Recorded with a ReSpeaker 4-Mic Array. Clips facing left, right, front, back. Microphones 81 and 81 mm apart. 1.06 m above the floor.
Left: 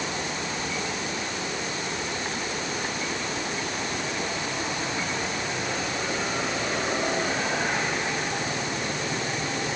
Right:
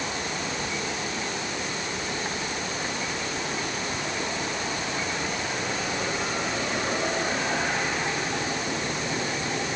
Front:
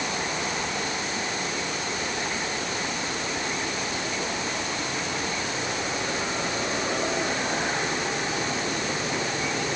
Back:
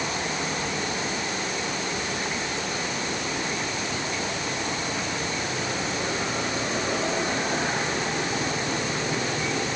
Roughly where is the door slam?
I don't hear a door slam.